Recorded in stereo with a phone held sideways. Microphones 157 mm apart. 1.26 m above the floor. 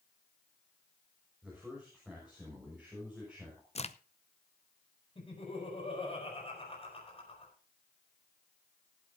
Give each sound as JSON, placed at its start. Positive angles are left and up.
{"t": 1.4, "sound": "a man speaking", "side_deg": -5, "distance_m": 6.0}
{"t": 3.8, "sound": "a crack", "side_deg": 45, "distance_m": 0.6}
{"t": 5.2, "sound": "laughter", "side_deg": 35, "distance_m": 5.0}